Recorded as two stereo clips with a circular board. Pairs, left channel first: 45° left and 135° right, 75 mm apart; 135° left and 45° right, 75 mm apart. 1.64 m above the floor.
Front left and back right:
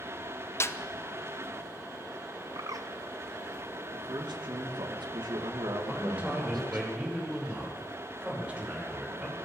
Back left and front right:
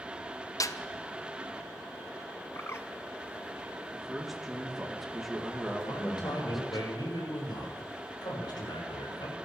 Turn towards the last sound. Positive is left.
turn(degrees=150)